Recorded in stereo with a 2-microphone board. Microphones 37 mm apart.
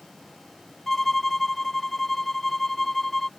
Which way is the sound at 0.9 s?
10° left (ahead or behind).